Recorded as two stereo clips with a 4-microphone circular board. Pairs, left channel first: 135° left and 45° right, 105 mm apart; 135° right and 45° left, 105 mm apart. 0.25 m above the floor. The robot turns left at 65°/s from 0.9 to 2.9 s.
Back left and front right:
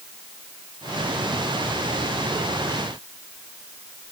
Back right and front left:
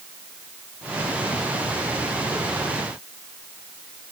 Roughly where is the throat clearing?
I don't hear throat clearing.